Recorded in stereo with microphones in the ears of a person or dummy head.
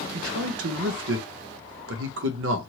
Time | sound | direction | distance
0.1 | a man speaking | 80° right | 0.8 m